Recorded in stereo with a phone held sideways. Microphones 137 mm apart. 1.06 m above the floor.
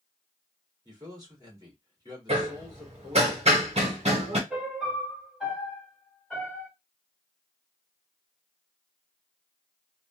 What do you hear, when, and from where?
0.8 s a man speaking: 30° right (ahead or behind), 2.0 m
2.3 s hammering: 50° right (ahead or behind), 1.4 m
4.5 s a piano: centre (ahead or behind), 1.9 m